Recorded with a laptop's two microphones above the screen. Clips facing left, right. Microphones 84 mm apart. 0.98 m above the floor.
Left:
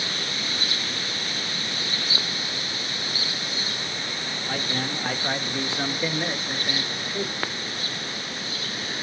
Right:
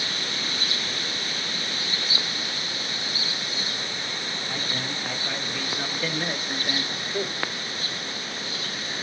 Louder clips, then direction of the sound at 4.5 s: Left 5 dB; 70° left (ahead or behind).